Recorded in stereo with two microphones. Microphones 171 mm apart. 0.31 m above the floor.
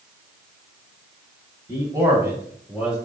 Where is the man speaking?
20° right (ahead or behind), 1.7 m; by 3.0 s 5° right (ahead or behind), 1.4 m.